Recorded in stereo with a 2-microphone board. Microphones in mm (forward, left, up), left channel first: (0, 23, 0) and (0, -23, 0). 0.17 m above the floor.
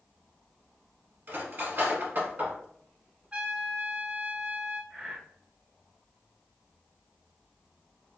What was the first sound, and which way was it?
Cutlery clinking, 50° right (ahead or behind).